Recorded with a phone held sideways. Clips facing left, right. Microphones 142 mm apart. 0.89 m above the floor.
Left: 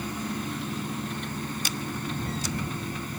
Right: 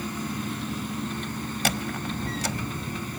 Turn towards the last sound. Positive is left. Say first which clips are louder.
# right 3 dB
turn(degrees=-75)  # may be behind; listen again after turning